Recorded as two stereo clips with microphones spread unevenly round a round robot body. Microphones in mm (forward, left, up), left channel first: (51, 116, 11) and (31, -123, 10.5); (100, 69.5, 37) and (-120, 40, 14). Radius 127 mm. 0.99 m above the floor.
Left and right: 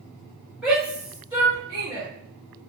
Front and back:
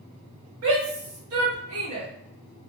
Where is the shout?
Straight behind, 1.3 m; by 2.1 s 170° right, 2 m.